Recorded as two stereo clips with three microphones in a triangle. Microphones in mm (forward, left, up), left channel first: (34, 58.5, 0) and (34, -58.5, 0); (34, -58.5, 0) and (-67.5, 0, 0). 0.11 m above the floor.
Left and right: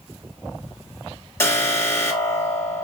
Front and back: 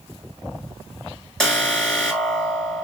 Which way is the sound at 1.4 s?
50° left.